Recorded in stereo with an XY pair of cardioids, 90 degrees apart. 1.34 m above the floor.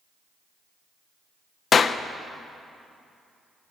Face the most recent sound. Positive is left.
turn(degrees=50)